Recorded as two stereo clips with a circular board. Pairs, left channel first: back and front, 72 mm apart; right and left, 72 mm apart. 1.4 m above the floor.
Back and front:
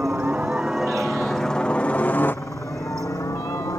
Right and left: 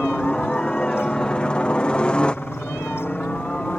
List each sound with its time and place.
0.0 s a helicopter: 20° right; by 3.8 s 165° right